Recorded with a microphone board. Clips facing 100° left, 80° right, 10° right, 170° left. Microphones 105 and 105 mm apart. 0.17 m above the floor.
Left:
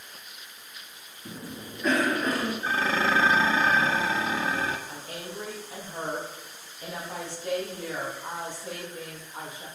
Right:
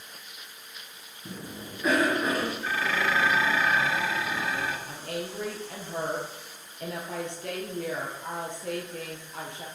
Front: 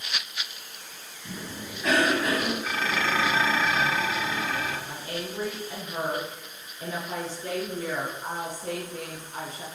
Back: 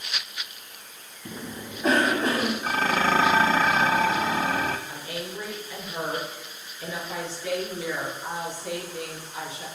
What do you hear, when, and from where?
1.2 s a cough: 160° right, 1.9 m
2.6 s dishes clattering: 145° left, 1.0 m
4.9 s a woman speaking: 60° right, 4 m